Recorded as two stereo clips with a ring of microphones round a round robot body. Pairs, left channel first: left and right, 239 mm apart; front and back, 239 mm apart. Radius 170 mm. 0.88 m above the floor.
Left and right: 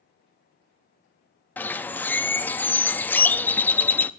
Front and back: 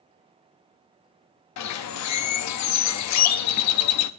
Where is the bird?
5° left, 0.6 m.